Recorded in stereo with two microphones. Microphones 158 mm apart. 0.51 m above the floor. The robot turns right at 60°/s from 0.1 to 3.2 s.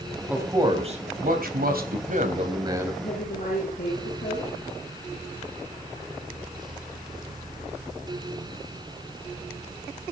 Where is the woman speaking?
55° left (ahead or behind), 9.5 m; by 4.5 s 65° left (ahead or behind), 9.5 m.